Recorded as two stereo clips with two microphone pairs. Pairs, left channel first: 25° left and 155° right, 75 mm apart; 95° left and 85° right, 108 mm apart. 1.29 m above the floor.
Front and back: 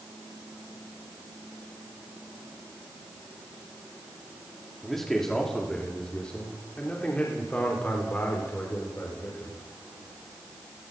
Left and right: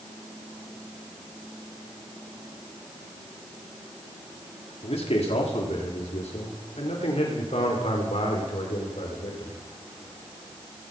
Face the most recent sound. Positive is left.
turn(degrees=85)